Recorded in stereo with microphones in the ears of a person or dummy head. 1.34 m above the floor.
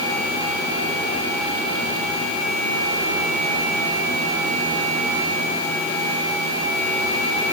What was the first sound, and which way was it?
Only background noise.